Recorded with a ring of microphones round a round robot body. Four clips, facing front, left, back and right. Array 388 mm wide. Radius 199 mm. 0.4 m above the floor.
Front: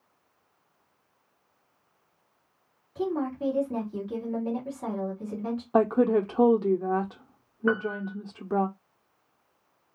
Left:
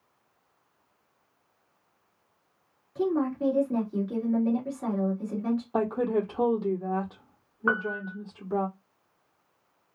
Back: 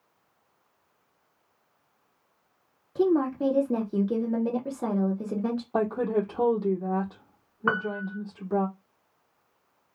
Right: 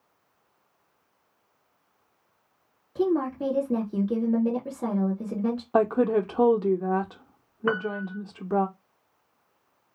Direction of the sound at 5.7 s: 55° right.